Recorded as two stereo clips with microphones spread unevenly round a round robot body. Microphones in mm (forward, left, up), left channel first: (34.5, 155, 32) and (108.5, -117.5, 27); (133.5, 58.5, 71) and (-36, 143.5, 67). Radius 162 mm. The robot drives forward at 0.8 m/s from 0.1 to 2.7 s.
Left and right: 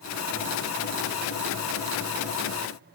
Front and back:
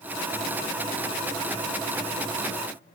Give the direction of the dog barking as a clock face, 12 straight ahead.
I don't hear a dog barking.